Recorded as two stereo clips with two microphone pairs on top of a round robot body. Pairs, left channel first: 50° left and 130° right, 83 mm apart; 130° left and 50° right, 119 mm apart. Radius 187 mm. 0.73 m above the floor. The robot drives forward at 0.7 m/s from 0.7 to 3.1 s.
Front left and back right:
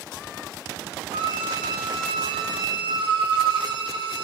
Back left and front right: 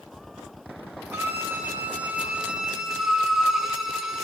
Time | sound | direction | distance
1.1 | a violin | 115° right | 2.5 m